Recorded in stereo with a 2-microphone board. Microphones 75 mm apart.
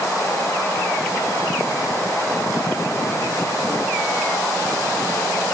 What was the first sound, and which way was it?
Only background noise.